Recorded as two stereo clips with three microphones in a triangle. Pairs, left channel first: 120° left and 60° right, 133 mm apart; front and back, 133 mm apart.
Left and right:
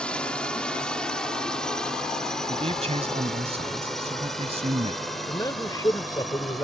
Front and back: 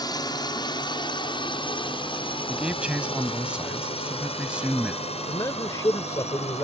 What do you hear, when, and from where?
0.0 s a drone: 40° left; by 6.6 s 30° left
2.5 s a man speaking: 100° right
5.3 s a man speaking: 60° left